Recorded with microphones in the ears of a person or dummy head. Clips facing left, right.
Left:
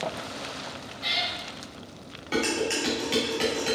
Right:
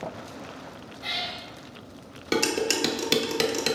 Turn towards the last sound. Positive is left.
turn(degrees=-50)  # may be behind; listen again after turning